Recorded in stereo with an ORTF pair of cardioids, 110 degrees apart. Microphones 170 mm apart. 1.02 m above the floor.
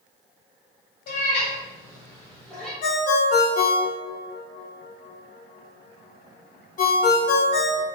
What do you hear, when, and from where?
1.1 s a cat meowing: 60° left, 0.9 m; by 2.7 s straight ahead, 1.5 m
2.8 s a ringtone: 55° left, 0.8 m